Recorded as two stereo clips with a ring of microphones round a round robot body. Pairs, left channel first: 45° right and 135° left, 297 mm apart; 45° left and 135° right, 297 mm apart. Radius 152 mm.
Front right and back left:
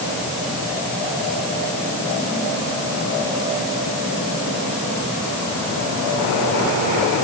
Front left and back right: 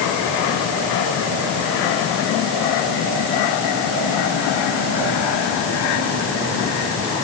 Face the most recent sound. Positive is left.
No sound to turn to.